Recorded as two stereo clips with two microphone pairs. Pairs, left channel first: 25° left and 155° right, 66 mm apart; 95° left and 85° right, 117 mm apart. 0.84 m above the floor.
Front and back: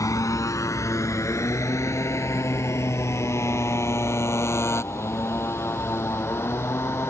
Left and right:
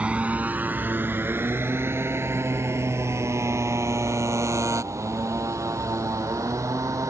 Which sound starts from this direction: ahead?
A motorcycle, at 0.0 s.